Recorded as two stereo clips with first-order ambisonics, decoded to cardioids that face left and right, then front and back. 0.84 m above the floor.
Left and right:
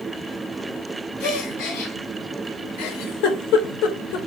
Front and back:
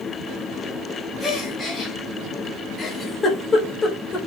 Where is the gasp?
85° left, 5.5 m.